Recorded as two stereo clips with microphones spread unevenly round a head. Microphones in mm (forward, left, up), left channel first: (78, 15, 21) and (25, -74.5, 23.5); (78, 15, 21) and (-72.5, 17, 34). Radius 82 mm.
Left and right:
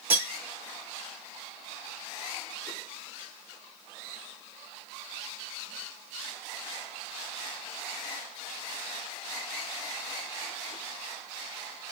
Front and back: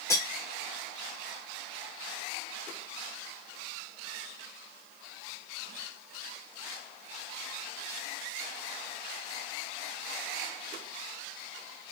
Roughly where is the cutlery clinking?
Ahead right.